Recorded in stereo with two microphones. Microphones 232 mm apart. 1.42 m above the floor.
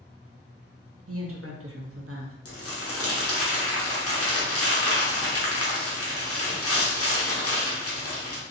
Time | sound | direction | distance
1.1 | a woman speaking | 70° right (ahead or behind) | 0.7 m
2.5 | crumpling | 80° left | 0.8 m